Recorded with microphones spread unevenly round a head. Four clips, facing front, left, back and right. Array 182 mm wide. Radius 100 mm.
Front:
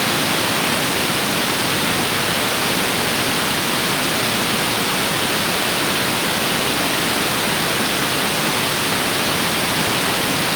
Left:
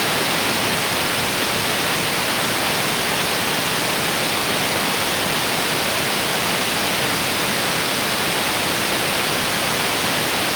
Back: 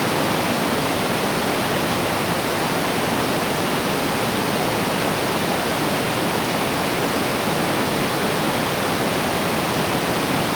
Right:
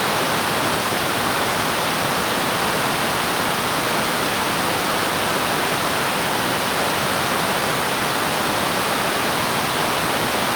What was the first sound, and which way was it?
Only background noise.